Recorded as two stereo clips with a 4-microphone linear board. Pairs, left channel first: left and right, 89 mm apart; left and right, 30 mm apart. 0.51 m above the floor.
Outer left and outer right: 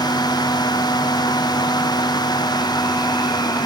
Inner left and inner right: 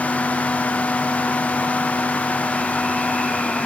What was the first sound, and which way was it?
Only background noise.